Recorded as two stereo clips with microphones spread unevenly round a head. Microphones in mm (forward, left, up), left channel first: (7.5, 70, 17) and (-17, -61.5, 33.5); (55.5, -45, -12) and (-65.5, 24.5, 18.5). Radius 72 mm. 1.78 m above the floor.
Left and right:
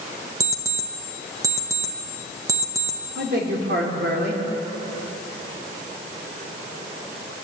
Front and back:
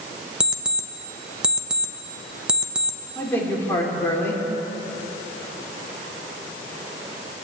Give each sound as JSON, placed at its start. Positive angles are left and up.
{"t": 0.4, "sound": "an alarm clock", "azimuth_deg": -145, "distance_m": 1.1}
{"t": 3.1, "sound": "a man speaking", "azimuth_deg": -110, "distance_m": 4.0}